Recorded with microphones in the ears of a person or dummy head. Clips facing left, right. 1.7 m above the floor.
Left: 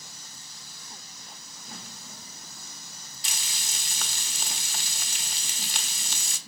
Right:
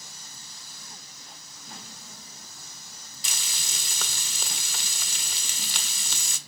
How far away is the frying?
About 1.0 m.